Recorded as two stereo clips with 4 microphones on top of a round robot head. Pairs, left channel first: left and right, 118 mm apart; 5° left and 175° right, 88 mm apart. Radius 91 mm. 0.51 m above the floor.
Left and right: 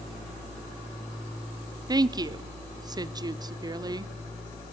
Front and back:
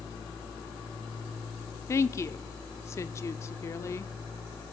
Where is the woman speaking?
45° right, 1.0 m.